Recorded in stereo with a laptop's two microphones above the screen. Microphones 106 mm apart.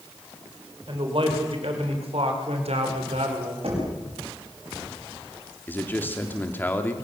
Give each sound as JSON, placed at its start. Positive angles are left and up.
{"t": 0.9, "sound": "a man speaking", "side_deg": -55, "distance_m": 4.5}
{"t": 3.6, "sound": "knocking", "side_deg": -70, "distance_m": 6.0}
{"t": 5.7, "sound": "a man speaking", "side_deg": 20, "distance_m": 2.0}